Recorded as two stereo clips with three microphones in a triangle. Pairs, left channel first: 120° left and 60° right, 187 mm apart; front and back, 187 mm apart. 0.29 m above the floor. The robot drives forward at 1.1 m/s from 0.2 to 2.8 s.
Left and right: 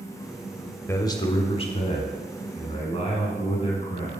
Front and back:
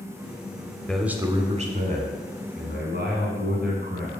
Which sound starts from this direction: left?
A man speaking, at 0.9 s.